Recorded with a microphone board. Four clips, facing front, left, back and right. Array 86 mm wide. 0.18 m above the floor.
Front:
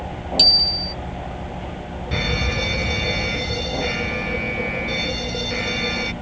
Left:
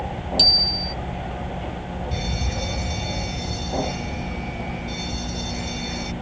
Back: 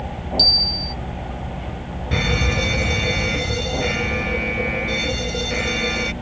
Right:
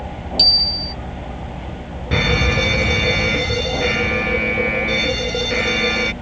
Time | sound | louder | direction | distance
0.4 | a bicycle bell | even, even | 5° right | ?
2.1 | an alarm | right 16 dB, back 3 dB | 95° right | ?